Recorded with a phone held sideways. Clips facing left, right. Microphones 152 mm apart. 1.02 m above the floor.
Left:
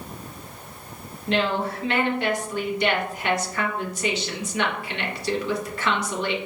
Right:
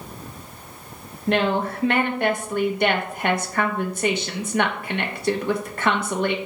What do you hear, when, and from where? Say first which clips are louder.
1.3 s a woman speaking: right 3 dB; 50° right (ahead or behind), 0.8 m